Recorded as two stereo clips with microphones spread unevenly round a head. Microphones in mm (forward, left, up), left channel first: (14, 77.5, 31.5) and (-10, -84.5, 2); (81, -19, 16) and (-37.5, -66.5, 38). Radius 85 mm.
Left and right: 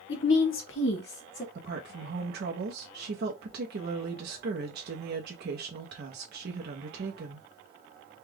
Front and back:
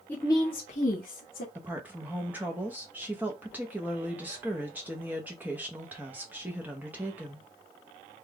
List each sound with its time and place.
0.1 s a woman speaking: 105° left, 1.0 m; by 1.4 s 40° left, 1.1 m
1.6 s a woman speaking: 80° right, 0.9 m